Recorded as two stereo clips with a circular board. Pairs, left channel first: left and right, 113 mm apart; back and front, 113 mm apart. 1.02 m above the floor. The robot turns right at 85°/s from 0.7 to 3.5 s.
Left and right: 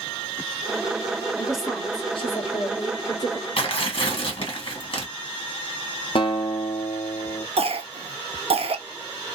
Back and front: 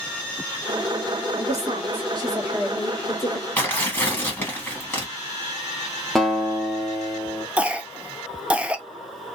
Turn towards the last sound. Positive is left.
turn(degrees=-80)